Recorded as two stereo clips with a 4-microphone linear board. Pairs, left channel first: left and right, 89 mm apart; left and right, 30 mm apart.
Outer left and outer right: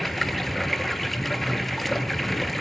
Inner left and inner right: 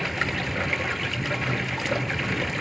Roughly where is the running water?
Centre.